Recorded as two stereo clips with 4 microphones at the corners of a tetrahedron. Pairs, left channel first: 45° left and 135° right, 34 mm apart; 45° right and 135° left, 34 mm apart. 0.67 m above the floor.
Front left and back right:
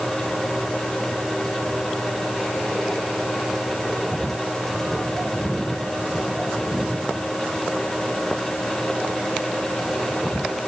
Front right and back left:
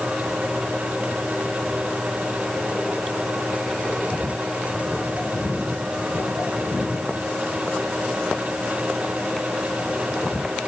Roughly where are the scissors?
No scissors in this recording.